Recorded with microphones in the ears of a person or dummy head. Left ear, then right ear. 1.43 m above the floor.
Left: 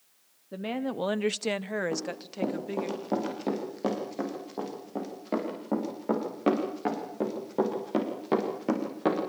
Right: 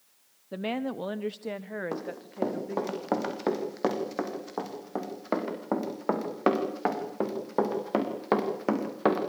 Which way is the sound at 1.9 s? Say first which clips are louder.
Left 2 dB; 60° right (ahead or behind).